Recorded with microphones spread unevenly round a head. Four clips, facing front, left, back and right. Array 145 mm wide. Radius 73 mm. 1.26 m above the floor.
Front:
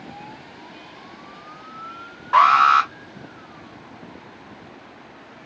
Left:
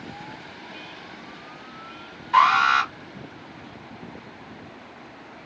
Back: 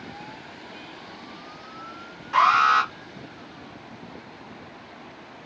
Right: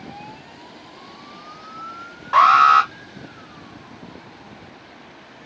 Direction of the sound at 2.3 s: 50° right.